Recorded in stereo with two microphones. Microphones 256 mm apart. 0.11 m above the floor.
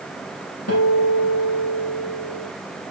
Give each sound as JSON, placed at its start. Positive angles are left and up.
{"t": 0.7, "sound": "a guitar", "side_deg": 65, "distance_m": 1.4}